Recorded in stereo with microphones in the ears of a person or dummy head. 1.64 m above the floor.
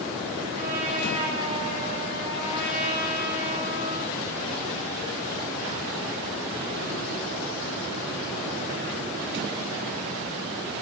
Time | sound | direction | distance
0.6 | a trumpet | 35° right (ahead or behind) | 3.5 m